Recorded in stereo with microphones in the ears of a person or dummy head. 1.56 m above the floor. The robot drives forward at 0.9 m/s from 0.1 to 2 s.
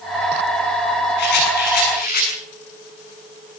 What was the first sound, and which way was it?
A rattle, 60° left (ahead or behind).